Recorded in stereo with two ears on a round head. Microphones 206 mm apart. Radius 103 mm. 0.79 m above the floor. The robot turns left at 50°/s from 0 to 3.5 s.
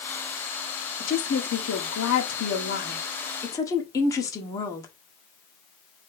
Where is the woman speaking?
140° left, 1.5 m; by 4.9 s 15° left, 1.5 m.